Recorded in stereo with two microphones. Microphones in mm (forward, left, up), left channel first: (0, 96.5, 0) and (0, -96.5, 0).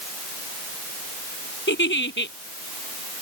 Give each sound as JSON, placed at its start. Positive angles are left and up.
{"t": 1.7, "sound": "a giggle", "side_deg": 70}